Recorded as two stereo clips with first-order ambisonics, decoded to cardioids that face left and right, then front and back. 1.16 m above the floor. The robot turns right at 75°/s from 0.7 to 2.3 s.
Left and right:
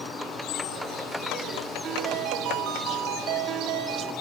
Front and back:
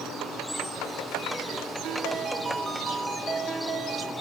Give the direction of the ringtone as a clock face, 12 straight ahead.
5 o'clock.